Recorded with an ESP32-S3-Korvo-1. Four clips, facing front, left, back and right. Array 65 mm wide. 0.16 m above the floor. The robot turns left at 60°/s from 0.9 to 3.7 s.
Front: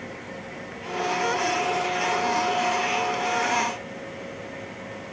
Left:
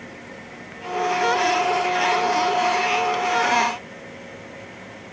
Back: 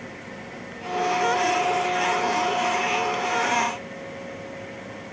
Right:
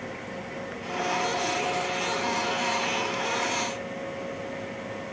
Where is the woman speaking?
I don't hear a woman speaking.